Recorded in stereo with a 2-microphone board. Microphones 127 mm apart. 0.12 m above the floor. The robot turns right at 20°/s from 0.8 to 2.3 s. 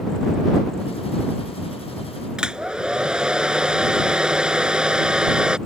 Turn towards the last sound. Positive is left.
turn(degrees=-5)  # may be behind; listen again after turning